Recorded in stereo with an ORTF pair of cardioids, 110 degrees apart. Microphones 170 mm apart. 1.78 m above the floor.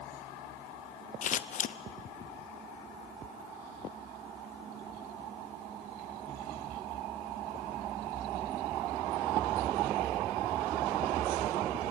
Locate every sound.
1.2 s scissors: 45° left, 0.9 m